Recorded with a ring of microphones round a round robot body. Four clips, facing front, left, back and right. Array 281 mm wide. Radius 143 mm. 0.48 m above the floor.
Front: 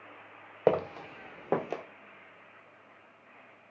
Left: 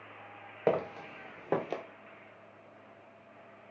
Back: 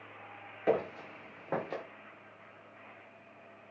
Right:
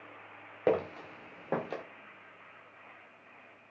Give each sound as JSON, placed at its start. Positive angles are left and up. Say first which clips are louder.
{"t": 0.7, "sound": "footsteps", "louder": "right 1 dB, front 4 dB", "azimuth_deg": -5, "distance_m": 0.9}